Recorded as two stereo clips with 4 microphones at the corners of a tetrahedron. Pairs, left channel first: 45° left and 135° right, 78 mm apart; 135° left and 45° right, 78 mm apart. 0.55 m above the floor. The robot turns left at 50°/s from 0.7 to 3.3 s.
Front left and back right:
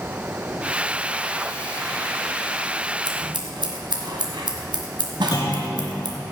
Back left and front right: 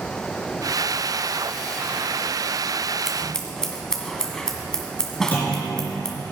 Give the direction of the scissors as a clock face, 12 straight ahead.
4 o'clock.